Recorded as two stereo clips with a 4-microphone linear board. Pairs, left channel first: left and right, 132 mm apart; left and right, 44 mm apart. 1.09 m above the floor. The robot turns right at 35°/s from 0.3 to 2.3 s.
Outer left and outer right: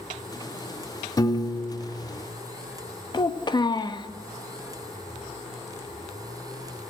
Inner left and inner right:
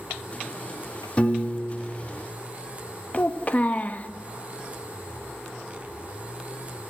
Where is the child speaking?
35° left (ahead or behind), 0.8 m.